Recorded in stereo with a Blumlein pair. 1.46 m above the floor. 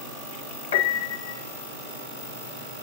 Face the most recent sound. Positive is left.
turn(degrees=60)